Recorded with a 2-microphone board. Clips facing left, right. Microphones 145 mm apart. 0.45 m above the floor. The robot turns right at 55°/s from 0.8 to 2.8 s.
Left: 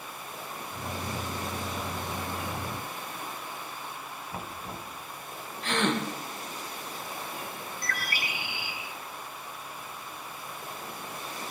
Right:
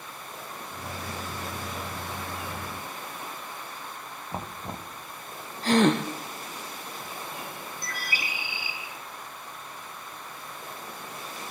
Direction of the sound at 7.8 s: 60° left (ahead or behind).